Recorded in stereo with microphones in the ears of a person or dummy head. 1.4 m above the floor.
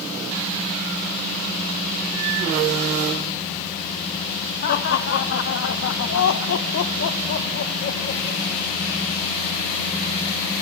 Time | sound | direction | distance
4.6 | laughter | 55° left (ahead or behind) | 1.7 m